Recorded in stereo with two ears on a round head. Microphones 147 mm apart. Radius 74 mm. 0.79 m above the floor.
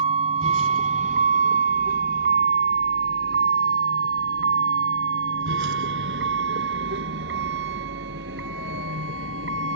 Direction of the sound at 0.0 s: 40° right (ahead or behind).